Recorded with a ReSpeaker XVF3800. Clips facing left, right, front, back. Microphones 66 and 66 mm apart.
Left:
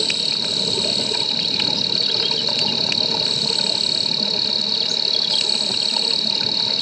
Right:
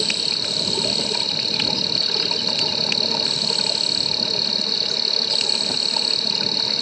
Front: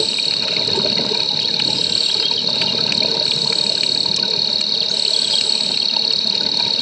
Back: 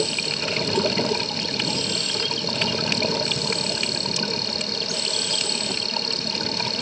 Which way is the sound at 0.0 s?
120° right.